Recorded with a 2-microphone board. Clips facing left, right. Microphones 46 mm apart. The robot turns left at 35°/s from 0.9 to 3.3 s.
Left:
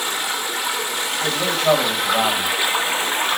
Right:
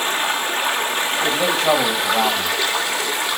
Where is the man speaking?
165° right, 5.5 m; by 2.5 s 145° left, 5.5 m.